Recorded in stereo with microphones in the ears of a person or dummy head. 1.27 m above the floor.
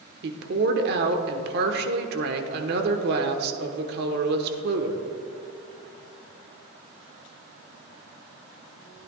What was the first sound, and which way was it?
A woman speaking, 60° right (ahead or behind).